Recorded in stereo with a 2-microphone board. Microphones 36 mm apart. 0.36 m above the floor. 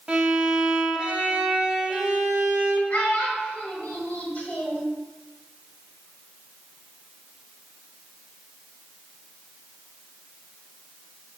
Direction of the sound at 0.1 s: 25° right (ahead or behind).